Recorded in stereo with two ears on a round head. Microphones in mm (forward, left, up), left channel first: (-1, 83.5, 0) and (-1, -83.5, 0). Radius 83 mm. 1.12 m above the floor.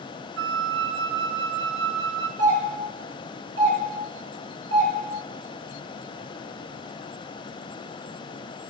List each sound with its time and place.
0.4 s a flute: 65° right (ahead or behind), 0.5 m
2.4 s a doorbell: 70° right (ahead or behind), 2.5 m